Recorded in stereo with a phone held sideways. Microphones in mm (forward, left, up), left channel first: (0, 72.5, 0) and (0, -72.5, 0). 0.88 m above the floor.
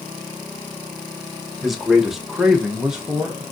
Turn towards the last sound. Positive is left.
turn(degrees=-5)  # may be behind; listen again after turning